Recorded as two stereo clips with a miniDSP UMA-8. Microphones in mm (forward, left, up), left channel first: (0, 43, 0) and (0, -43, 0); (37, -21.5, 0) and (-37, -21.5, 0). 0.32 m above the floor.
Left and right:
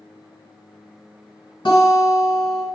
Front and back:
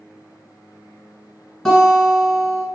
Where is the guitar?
85° left, 1.3 m.